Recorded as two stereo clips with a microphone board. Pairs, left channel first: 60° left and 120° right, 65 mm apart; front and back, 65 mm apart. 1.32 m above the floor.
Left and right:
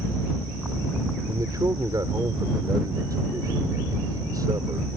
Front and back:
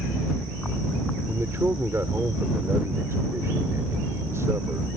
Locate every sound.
1.3 s a man speaking: 135° right